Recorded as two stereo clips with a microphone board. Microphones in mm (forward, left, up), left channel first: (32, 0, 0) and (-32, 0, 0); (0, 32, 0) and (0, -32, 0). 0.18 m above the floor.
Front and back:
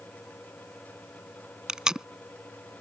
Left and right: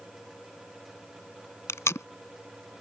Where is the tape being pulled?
105° left.